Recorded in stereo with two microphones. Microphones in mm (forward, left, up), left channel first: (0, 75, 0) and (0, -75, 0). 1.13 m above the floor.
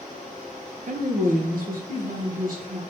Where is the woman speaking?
60° right (ahead or behind), 0.7 m; by 2.8 s 70° right (ahead or behind), 1.4 m.